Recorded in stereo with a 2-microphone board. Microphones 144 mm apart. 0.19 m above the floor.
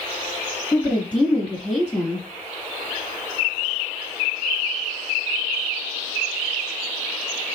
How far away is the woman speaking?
About 1.3 m.